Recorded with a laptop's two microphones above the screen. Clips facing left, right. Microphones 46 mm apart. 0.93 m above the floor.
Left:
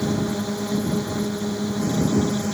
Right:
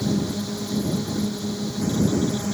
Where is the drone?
30° left (ahead or behind).